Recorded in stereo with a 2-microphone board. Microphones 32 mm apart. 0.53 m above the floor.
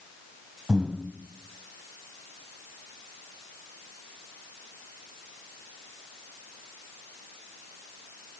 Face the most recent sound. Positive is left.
turn(degrees=-25)  # may be behind; listen again after turning